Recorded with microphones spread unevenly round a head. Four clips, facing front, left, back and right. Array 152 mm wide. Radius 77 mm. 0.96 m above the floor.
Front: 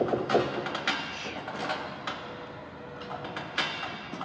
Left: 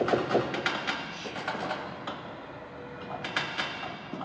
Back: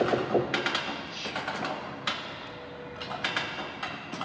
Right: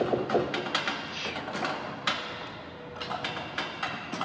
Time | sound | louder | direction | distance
1.1 | whispering | even, back 2 dB | 75° right | 1.5 m